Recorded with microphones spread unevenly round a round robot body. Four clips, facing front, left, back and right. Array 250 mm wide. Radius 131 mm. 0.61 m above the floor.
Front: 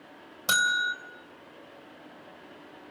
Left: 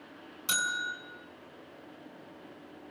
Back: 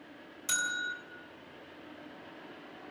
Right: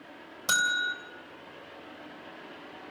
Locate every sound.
0.5 s a bell: 30° right, 3 m